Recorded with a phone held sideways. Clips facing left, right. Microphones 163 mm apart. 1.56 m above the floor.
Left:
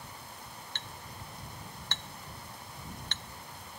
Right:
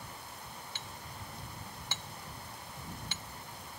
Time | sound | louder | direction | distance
0.8 | a clink | even | 10° right (ahead or behind) | ?